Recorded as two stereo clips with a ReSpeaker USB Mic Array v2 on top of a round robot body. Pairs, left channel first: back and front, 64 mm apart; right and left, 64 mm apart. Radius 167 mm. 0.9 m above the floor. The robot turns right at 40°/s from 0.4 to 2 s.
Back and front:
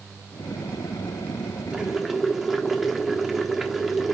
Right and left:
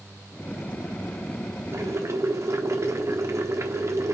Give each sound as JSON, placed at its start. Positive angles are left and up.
{"t": 1.7, "sound": "boiling", "azimuth_deg": 70, "distance_m": 1.3}